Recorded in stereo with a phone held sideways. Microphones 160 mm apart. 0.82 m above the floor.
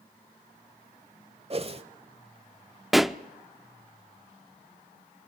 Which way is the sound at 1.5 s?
40° right (ahead or behind).